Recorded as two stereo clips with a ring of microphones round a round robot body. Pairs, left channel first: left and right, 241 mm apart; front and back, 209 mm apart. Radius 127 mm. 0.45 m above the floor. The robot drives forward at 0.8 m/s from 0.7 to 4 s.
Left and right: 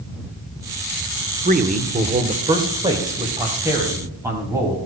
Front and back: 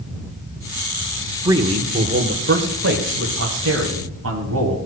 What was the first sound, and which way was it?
A man speaking, 115° right.